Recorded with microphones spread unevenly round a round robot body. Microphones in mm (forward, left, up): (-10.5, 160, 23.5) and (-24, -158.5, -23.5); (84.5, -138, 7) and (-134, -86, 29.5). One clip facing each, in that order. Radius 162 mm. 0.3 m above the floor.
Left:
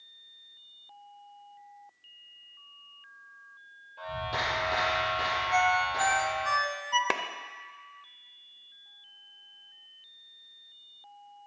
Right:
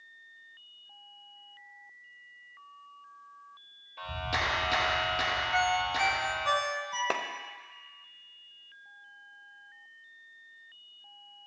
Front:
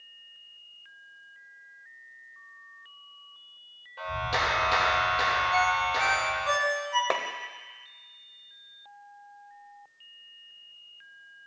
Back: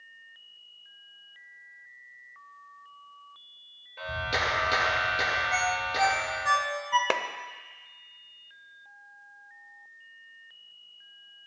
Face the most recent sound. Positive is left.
turn(degrees=155)